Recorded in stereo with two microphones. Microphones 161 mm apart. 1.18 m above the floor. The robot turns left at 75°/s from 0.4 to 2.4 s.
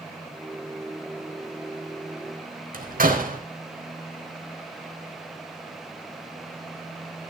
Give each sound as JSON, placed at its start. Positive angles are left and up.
{"t": 2.7, "sound": "a door slam", "side_deg": -70, "distance_m": 3.5}